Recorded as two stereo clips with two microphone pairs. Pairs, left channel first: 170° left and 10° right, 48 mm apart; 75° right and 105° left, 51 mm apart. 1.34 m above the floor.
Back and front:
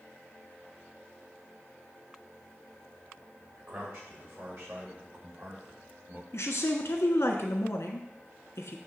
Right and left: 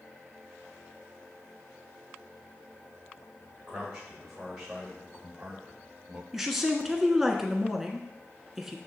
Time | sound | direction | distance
3.6 | a man speaking | 20° left | 4 m
6.3 | a woman speaking | 170° right | 1.3 m